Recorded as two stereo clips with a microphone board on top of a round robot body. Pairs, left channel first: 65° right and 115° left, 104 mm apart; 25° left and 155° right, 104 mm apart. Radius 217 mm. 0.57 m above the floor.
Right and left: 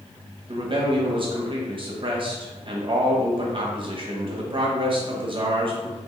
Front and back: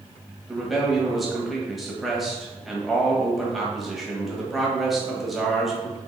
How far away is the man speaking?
About 1.5 m.